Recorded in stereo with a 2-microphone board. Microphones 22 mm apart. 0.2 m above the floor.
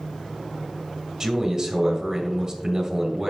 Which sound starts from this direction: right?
A man speaking, at 1.2 s.